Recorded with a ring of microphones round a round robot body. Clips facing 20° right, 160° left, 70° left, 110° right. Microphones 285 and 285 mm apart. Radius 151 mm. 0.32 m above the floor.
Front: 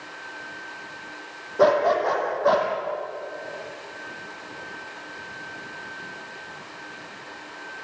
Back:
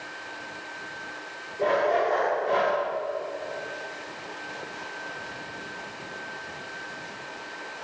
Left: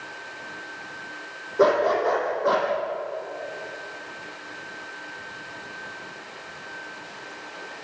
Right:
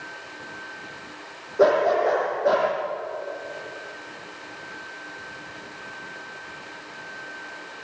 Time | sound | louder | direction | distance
1.6 | a dog barking | front 4 dB, right 1 dB | 15° right | 5.5 m